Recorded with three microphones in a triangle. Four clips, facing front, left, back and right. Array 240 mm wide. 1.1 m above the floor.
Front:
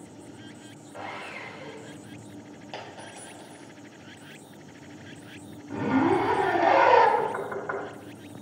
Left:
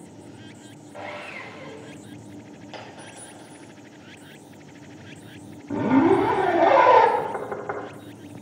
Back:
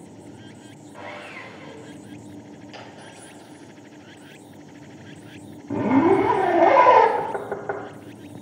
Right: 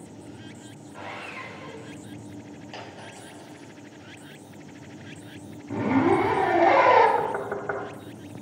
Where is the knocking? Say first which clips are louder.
Even, back 2 dB; 165° right, 1.2 m.